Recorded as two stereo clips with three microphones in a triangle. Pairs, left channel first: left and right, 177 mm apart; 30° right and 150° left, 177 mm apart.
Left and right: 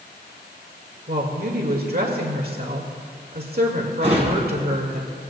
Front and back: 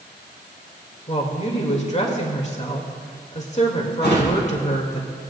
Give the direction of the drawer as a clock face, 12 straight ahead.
1 o'clock.